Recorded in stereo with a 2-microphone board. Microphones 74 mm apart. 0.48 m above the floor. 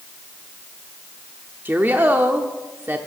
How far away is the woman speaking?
About 0.8 m.